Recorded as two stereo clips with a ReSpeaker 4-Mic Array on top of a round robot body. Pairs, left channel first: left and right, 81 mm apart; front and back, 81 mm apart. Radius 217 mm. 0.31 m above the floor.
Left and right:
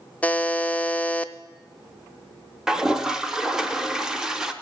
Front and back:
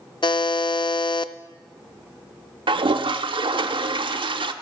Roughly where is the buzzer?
Ahead.